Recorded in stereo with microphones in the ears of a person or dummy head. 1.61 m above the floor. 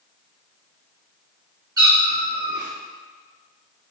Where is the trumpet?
I don't hear a trumpet.